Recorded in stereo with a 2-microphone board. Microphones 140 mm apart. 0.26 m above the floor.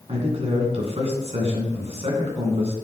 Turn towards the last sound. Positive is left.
turn(degrees=-45)  # may be behind; listen again after turning